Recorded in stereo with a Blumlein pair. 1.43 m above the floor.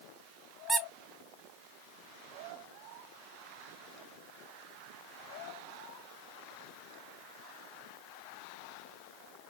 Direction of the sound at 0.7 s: 10° right.